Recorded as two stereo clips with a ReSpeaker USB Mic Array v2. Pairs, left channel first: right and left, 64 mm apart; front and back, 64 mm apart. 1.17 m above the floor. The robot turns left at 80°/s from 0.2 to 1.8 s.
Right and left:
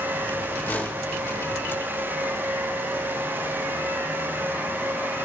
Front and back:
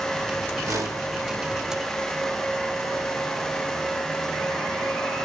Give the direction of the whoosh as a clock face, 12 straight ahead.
5 o'clock.